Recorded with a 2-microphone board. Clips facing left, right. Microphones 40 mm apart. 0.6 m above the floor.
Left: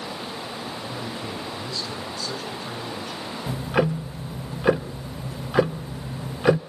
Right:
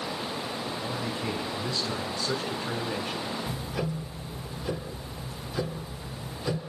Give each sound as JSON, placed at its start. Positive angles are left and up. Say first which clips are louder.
{"t": 0.8, "sound": "a man speaking", "louder": "even", "side_deg": 5, "distance_m": 7.5}
{"t": 3.5, "sound": "ticking", "louder": "left 9 dB", "side_deg": 80, "distance_m": 0.7}